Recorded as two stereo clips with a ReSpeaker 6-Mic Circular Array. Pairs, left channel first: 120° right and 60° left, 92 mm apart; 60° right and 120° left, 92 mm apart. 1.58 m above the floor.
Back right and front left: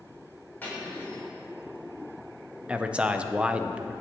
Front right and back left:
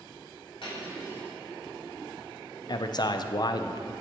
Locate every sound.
0.6 s cutlery clinking: 50° right, 3 m
2.7 s a man speaking: 20° right, 0.5 m